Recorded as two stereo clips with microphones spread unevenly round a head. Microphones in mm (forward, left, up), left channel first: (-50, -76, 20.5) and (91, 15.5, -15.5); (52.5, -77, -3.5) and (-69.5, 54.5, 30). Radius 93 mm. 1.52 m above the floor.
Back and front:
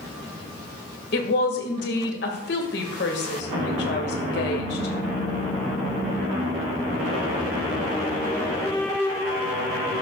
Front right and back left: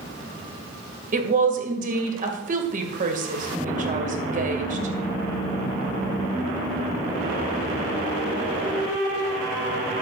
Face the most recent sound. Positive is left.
turn(degrees=180)